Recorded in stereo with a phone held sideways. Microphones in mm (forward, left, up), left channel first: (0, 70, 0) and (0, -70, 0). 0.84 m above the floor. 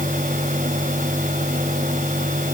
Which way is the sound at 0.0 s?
70° right (ahead or behind).